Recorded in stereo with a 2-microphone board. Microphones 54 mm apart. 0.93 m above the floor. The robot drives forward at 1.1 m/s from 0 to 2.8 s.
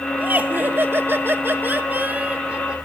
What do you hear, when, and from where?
0.2 s laughter: 30° right (ahead or behind), 1.5 m; by 2.8 s 20° right (ahead or behind), 2 m